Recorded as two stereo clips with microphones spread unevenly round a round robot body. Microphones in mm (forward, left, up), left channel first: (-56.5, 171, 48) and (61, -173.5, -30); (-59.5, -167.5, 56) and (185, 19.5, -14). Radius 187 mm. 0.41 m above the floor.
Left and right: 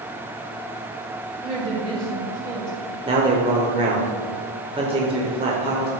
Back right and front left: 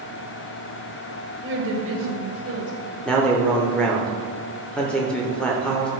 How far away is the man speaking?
About 0.9 m.